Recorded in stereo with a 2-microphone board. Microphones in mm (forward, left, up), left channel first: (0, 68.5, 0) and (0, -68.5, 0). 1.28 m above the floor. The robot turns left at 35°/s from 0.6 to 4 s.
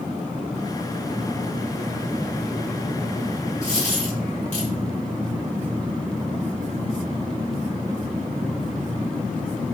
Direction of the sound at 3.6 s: 60° left (ahead or behind).